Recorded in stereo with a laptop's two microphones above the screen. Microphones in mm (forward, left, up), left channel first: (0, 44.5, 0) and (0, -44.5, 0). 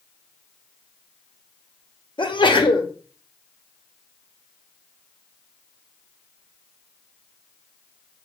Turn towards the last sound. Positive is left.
turn(degrees=65)  # may be behind; listen again after turning